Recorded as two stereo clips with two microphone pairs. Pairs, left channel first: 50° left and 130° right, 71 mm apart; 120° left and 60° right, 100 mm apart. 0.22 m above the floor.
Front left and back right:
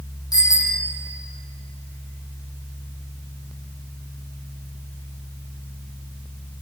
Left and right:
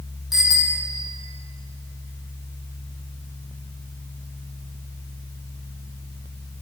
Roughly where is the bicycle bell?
Ahead left.